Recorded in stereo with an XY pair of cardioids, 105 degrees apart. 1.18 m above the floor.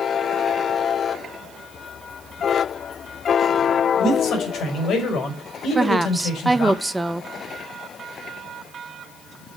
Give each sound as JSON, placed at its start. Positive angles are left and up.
{"t": 4.0, "sound": "a man speaking", "azimuth_deg": 65, "distance_m": 5.0}
{"t": 5.8, "sound": "a woman speaking", "azimuth_deg": -10, "distance_m": 0.9}